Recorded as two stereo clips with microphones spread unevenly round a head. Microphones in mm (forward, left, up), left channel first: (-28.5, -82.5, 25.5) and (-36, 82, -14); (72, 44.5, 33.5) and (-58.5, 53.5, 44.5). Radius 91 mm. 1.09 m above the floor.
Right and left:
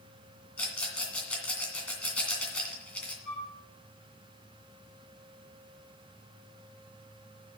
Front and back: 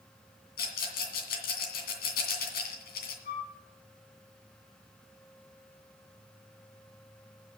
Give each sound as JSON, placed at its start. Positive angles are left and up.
{"t": 0.6, "sound": "a rattle", "azimuth_deg": -10, "distance_m": 2.0}
{"t": 3.2, "sound": "a flute", "azimuth_deg": 0, "distance_m": 6.0}